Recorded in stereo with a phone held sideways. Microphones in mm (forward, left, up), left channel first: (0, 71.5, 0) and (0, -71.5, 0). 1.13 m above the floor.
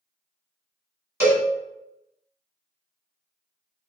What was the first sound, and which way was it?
A cowbell, 15° right (ahead or behind).